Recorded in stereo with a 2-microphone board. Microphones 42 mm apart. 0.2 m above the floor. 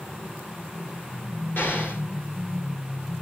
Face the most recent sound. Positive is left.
turn(degrees=55)  # may be behind; listen again after turning